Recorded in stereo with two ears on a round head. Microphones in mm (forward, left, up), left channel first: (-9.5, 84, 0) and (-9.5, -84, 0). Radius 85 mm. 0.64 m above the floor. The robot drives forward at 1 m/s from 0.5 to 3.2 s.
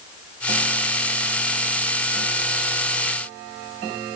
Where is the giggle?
No giggle in this recording.